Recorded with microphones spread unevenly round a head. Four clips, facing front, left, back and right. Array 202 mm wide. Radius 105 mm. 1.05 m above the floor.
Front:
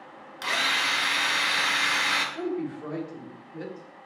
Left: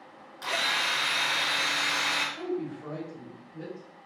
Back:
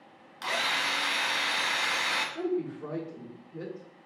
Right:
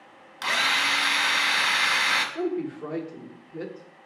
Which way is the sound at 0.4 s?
75° right.